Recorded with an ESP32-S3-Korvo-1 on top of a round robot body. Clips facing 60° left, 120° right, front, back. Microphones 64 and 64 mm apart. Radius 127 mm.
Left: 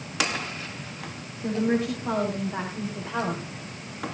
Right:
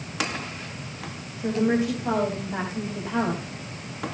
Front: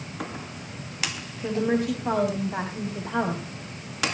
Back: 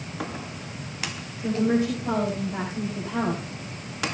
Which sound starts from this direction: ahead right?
A woman speaking, at 1.4 s.